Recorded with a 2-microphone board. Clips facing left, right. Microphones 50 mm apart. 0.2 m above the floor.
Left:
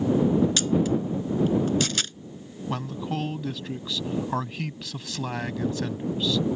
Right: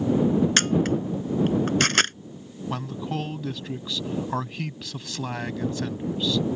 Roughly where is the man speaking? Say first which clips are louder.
Even; centre.